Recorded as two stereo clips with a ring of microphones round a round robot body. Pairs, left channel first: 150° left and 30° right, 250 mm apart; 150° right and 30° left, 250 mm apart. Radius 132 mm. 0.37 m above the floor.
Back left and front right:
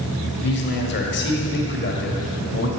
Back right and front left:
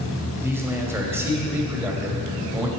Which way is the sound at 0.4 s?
110° left.